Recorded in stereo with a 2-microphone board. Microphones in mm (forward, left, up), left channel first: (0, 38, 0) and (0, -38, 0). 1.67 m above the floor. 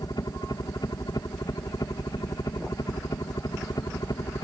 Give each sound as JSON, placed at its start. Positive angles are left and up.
{"t": 0.0, "sound": "a helicopter", "side_deg": 60}